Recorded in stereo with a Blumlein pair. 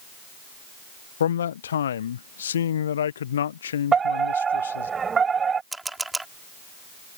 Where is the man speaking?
65° left.